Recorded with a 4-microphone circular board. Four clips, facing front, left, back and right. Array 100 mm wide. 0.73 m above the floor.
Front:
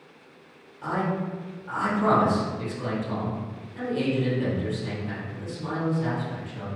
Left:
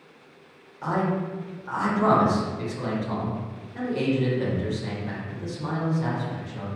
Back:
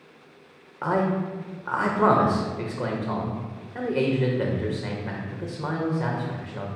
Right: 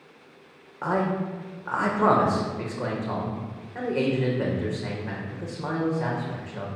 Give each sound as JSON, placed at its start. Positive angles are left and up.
{"t": 0.8, "sound": "a man speaking", "azimuth_deg": -150, "distance_m": 2.5}